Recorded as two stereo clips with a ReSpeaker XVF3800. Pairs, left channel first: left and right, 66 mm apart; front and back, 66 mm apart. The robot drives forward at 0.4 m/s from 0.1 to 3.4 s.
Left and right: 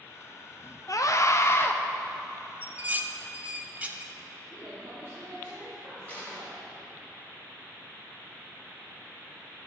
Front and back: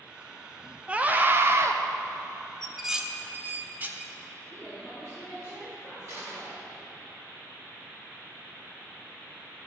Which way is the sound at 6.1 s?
150° left.